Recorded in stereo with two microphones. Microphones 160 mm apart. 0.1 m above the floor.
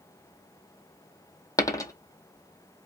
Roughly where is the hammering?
I don't hear hammering.